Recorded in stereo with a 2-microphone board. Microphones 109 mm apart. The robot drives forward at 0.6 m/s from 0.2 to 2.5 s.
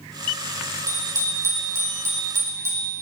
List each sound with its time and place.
0.9 s a bicycle bell: 25° right (ahead or behind), 6.5 m